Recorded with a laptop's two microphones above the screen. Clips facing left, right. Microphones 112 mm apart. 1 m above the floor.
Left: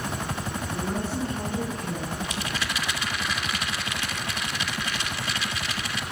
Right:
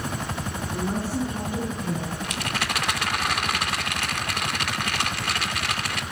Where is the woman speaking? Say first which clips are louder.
Right 3 dB; 10° right (ahead or behind), 9.5 m; by 2.1 s 15° right (ahead or behind), 10 m.